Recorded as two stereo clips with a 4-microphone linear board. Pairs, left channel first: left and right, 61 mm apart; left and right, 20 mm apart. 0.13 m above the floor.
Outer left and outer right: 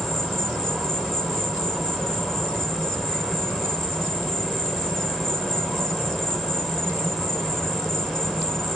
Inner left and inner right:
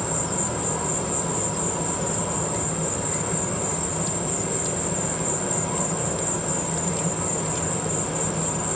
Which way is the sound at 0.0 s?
Centre (ahead or behind).